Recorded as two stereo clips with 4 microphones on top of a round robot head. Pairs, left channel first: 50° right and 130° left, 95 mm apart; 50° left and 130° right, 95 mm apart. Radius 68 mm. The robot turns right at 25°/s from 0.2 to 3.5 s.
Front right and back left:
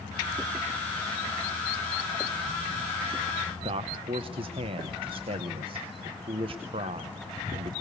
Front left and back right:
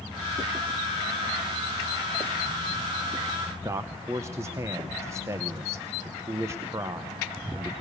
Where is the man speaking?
165° left, 0.8 m.